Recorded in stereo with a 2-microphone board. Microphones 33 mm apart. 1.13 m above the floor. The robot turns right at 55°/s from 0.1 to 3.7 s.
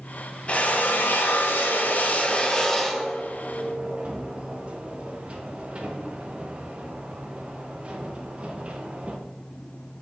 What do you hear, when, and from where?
0.5 s a drill: 40° left (ahead or behind), 0.6 m; by 9.2 s 35° right (ahead or behind), 0.6 m